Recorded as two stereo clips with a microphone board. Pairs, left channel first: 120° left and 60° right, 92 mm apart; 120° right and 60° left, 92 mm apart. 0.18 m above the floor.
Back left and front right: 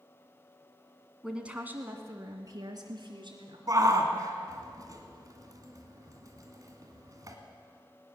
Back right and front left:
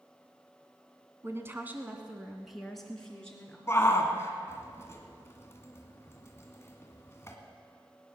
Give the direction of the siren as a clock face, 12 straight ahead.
No siren in this recording.